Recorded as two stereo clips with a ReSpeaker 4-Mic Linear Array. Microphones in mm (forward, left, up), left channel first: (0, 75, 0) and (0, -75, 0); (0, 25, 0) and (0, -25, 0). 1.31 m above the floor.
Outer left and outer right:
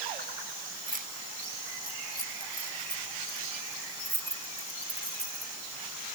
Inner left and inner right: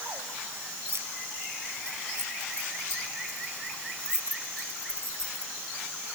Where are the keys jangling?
65° right (ahead or behind); by 6.2 s 85° right.